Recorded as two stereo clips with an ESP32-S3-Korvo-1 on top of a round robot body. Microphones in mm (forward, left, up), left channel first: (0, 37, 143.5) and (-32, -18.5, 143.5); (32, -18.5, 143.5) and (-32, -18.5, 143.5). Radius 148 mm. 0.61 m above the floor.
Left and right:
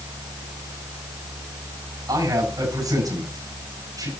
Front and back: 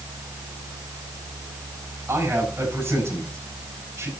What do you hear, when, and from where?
2.1 s a man speaking: 130° right, 7 m